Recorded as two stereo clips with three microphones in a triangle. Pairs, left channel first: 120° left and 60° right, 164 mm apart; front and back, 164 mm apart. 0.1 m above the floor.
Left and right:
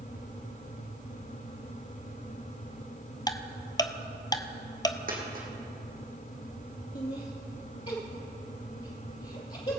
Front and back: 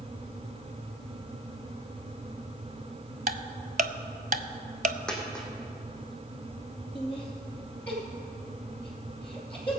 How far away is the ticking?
About 0.5 m.